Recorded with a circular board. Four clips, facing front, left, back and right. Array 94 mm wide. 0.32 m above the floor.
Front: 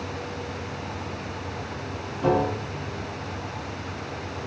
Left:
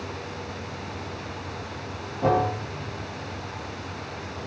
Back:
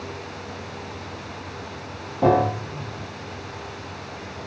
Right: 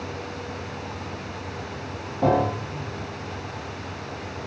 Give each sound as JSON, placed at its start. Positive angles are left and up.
{"t": 2.2, "sound": "a piano", "azimuth_deg": -155, "distance_m": 6.0}